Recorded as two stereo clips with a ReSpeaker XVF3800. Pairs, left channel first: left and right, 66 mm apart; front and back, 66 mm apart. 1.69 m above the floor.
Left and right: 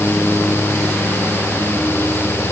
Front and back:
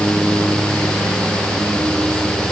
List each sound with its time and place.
Only background noise.